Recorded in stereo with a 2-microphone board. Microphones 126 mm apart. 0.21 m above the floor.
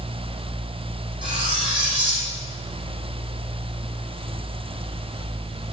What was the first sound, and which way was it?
Cutlery clinking, 45° right (ahead or behind).